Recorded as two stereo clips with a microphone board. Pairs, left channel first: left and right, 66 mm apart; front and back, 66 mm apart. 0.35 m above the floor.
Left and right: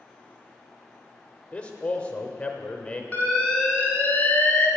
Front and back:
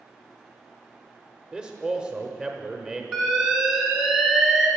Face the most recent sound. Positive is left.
turn(degrees=115)